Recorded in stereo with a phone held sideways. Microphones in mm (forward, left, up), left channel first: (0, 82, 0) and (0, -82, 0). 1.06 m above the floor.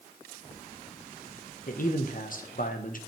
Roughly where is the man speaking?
Left.